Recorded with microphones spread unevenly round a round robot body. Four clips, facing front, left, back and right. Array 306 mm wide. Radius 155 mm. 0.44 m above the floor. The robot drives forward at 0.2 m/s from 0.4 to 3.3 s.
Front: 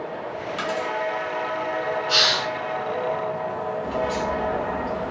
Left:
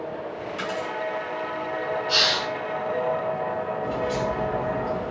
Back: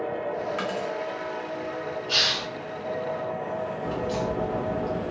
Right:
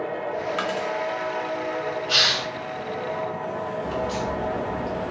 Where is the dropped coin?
75° right, 1.0 m; by 0.9 s 80° right, 1.0 m.